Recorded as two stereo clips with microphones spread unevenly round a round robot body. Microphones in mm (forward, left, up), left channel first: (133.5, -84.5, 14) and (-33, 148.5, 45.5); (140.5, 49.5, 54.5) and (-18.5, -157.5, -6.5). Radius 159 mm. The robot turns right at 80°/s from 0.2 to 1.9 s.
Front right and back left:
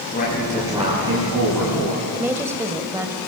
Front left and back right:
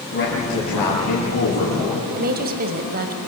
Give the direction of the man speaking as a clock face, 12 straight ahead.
12 o'clock.